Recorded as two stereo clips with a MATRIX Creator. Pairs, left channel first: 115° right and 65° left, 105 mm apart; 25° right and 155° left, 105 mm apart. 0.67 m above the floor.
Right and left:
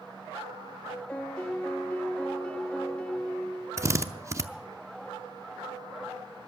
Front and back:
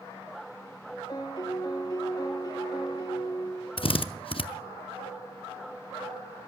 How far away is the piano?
About 1.2 m.